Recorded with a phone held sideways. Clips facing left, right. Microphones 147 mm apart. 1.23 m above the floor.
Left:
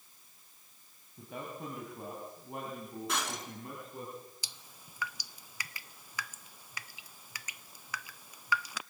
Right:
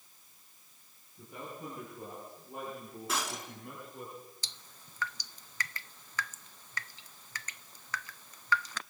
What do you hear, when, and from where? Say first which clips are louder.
1.2 s a man speaking: left 2 dB; 85° left, 7 m; by 4.1 s 80° left, 10.5 m
3.1 s breaking glass: right 1 dB; centre (ahead or behind), 6 m
4.4 s dripping: even; 10° left (ahead or behind), 0.5 m